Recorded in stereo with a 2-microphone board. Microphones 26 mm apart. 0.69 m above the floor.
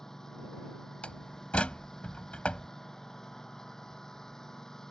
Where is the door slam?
55° left (ahead or behind).